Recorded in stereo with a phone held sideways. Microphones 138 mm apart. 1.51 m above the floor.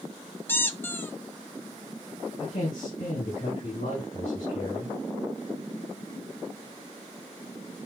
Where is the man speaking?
85° left, 4 m.